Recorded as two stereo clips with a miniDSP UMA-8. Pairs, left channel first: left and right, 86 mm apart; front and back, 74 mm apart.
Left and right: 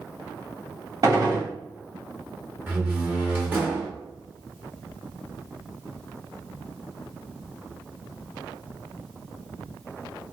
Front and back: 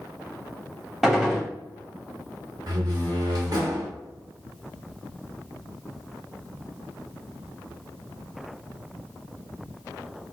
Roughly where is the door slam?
Behind right.